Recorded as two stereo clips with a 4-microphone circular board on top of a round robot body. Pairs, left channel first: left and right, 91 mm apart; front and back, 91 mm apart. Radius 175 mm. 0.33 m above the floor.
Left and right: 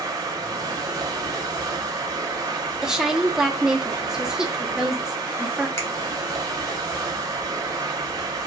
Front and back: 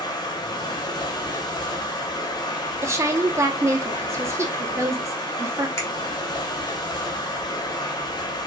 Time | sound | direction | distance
0.0 | running water | 40° right | 0.7 m
2.8 | a woman speaking | 170° right | 1.0 m
5.8 | a finger snap | 45° left | 1.4 m